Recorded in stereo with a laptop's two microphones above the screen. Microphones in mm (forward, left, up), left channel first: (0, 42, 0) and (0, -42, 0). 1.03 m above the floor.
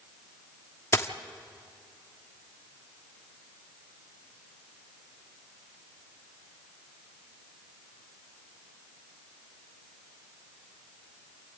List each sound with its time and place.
0.9 s a dropped coin: 35° left (ahead or behind), 1.0 m